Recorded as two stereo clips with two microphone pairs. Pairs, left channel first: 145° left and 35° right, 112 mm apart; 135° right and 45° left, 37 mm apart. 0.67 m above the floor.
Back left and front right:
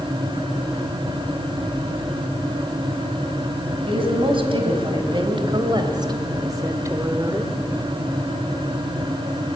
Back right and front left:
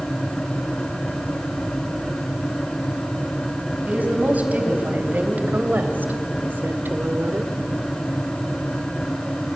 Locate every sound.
3.9 s a woman speaking: straight ahead, 4 m; by 7.5 s 40° left, 1.6 m